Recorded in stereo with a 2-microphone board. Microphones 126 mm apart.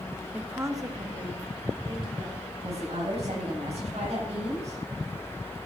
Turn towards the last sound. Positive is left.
turn(degrees=-60)  # may be behind; listen again after turning